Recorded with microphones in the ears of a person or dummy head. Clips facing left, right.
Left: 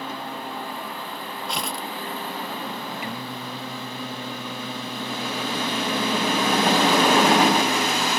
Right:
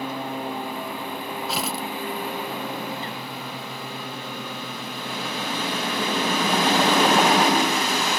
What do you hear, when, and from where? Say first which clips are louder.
0.0 s a lawn mower: right 4 dB; 15° right (ahead or behind); by 8.2 s 10° right (ahead or behind)
1.5 s tearing paper: right 1 dB; centre (ahead or behind)
3.0 s singing: left 1 dB; 10° left (ahead or behind)